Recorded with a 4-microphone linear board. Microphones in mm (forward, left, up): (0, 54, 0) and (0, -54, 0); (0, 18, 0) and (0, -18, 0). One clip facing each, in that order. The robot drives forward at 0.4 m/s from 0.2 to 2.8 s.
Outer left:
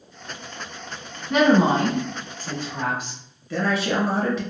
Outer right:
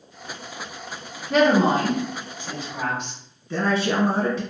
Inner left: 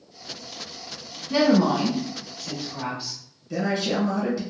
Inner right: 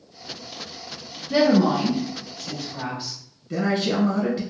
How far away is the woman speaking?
About 2.0 m.